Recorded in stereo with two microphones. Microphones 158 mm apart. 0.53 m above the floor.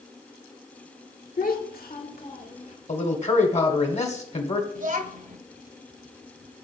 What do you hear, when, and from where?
1.4 s a child speaking: 60° left (ahead or behind), 1.1 m; by 2.8 s 50° left (ahead or behind), 1.4 m
2.9 s a man speaking: 45° left (ahead or behind), 1.5 m
4.8 s a child speaking: 60° right (ahead or behind), 0.7 m